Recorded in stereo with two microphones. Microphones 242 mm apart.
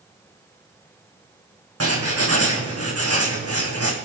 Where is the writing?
75° right (ahead or behind), 3.5 m.